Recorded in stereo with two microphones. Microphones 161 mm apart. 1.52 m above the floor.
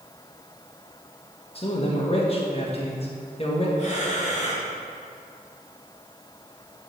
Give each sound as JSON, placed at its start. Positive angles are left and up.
{"t": 1.6, "sound": "a man speaking", "side_deg": 40, "distance_m": 1.5}
{"t": 3.8, "sound": "breathing", "side_deg": 45, "distance_m": 2.0}